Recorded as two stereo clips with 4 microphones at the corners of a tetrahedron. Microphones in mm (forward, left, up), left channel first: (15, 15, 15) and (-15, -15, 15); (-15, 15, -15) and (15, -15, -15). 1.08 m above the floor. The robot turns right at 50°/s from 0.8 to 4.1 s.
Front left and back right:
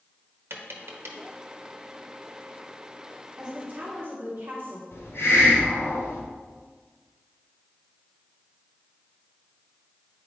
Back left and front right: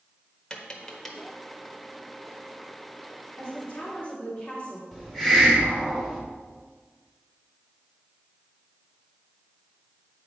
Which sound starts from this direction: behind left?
A woman speaking, at 3.4 s.